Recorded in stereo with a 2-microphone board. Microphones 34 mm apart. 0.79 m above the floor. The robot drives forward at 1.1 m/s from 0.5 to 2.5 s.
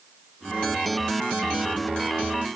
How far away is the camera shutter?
No camera shutter in this recording.